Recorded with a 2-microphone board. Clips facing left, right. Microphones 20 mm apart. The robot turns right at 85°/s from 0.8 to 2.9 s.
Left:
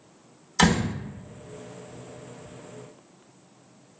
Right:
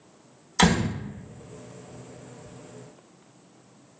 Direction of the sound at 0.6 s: Centre (ahead or behind).